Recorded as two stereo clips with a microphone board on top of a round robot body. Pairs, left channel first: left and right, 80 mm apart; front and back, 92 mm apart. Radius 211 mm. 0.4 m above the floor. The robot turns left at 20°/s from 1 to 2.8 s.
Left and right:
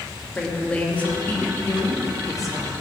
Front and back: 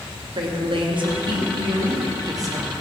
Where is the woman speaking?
160° left, 2.5 m; by 2.7 s 125° left, 2.5 m.